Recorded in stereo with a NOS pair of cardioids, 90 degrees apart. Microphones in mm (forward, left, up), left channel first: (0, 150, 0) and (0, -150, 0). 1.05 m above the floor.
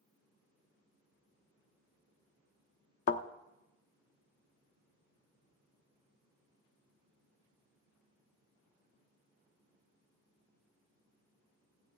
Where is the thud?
50° left, 1.0 m.